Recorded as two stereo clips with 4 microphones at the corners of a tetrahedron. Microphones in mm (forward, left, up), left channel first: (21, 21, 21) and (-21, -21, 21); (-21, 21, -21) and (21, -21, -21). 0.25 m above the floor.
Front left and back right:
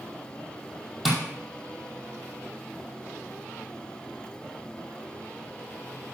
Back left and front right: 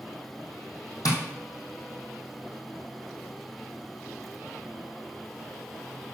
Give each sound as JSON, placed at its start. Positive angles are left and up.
{"t": 1.1, "sound": "tapping", "azimuth_deg": 140, "distance_m": 2.5}